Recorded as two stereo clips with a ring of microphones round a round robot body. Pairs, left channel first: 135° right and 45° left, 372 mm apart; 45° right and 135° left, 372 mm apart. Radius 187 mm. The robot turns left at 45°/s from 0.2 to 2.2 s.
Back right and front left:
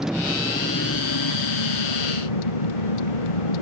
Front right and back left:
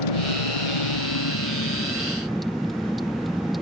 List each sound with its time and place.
0.0 s a vehicle: 45° right; by 3.6 s 135° right